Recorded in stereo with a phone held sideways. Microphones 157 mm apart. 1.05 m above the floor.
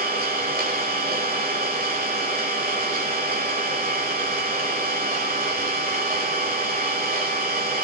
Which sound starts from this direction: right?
An engine running, at 0.0 s.